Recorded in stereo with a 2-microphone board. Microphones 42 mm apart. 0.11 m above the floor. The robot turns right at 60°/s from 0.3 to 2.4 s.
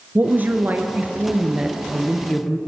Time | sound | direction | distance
0.1 | a woman speaking | 105° right | 2 m